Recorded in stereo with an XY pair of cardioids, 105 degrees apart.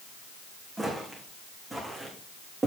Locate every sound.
0.8 s footsteps: 15° right, 6.5 m; by 2.7 s 25° right, 6.5 m